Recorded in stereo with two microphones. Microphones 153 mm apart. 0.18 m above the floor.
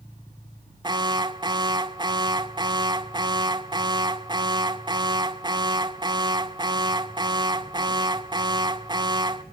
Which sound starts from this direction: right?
An alarm, at 0.8 s.